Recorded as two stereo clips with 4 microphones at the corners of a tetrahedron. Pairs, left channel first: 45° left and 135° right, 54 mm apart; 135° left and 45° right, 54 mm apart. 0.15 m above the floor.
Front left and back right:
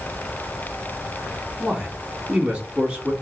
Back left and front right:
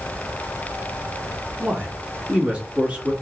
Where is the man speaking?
85° right, 1.2 m.